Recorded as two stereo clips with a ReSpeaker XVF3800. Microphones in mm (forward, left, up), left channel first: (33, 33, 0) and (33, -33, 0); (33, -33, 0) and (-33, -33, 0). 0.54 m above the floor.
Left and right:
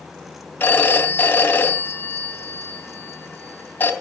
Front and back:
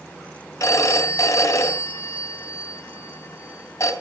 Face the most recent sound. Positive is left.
turn(degrees=30)